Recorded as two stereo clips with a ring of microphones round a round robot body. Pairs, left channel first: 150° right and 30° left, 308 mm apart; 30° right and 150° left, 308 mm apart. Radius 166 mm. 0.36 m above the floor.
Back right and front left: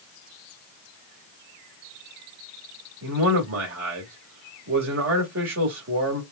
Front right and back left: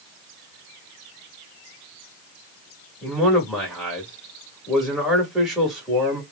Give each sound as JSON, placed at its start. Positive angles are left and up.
{"t": 3.0, "sound": "a man speaking", "azimuth_deg": 60, "distance_m": 2.0}